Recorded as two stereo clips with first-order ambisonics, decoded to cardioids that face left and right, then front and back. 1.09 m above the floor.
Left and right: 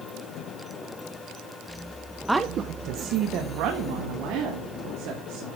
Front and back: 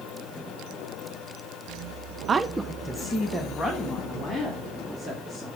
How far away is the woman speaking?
About 0.6 m.